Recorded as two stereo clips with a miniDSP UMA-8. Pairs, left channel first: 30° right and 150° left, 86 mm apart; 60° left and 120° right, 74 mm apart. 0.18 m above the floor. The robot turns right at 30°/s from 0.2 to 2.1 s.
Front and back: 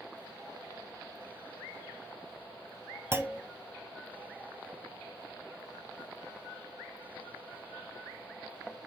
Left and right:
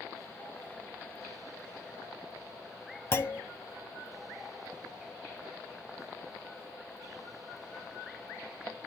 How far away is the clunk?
About 0.7 m.